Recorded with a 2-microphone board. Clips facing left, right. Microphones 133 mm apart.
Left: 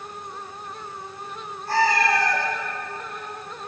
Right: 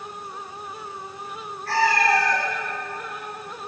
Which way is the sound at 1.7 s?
85° right.